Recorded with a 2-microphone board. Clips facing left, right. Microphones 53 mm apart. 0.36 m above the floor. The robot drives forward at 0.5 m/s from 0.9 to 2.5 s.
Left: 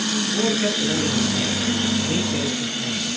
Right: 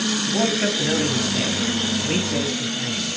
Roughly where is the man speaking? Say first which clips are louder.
Even; right.